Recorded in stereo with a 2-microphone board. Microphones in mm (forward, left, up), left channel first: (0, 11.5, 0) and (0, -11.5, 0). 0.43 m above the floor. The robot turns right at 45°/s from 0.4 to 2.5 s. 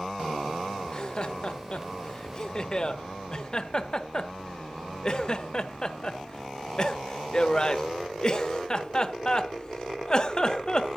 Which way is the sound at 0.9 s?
35° left (ahead or behind).